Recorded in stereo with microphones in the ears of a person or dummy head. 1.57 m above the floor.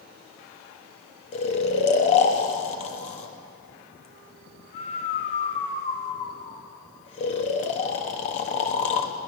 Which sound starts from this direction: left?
Snoring, at 1.3 s.